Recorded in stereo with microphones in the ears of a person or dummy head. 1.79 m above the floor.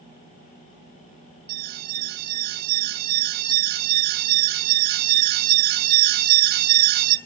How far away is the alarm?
About 2.0 m.